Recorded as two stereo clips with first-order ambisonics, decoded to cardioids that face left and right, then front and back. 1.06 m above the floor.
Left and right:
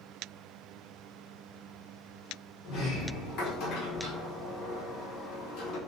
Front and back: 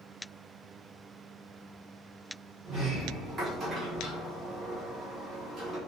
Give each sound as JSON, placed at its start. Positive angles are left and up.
{"t": 2.6, "sound": "a sliding door", "azimuth_deg": 120, "distance_m": 0.9}